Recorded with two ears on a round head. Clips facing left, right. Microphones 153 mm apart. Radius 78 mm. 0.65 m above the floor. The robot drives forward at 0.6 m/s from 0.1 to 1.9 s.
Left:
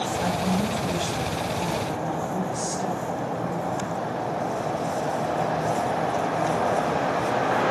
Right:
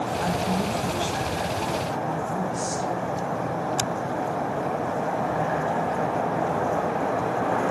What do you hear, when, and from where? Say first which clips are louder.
0.2 s a woman speaking: left 1 dB; 30° left (ahead or behind), 3 m; by 3.7 s 20° left (ahead or behind), 4 m